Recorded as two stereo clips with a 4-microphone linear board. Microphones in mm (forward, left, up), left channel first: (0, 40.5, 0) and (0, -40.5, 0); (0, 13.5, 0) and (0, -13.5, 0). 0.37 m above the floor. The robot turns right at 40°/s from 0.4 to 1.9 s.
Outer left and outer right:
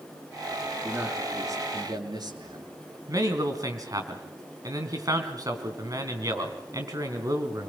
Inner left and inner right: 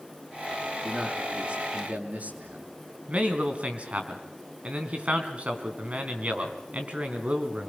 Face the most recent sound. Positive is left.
turn(degrees=-50)  # may be behind; listen again after turning